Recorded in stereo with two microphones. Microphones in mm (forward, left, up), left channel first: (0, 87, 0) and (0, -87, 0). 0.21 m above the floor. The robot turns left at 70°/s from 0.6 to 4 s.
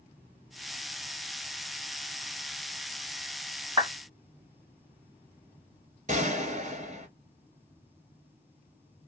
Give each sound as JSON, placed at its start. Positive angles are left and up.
{"t": 3.8, "sound": "a clap", "side_deg": -30, "distance_m": 1.8}
{"t": 6.1, "sound": "a gunshot", "side_deg": -45, "distance_m": 1.1}